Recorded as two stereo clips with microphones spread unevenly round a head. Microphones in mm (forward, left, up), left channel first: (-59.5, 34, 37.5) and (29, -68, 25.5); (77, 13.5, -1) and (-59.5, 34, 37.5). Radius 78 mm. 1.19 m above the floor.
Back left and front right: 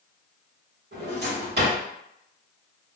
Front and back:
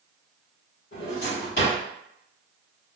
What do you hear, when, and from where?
0.9 s a drawer: 40° right, 1.5 m